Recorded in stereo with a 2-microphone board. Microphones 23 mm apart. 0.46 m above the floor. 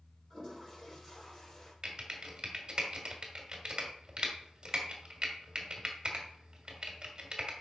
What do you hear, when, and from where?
0.3 s a toilet flushing: 10° left (ahead or behind), 4.5 m
1.8 s typing on a keyboard: 40° right (ahead or behind), 1.5 m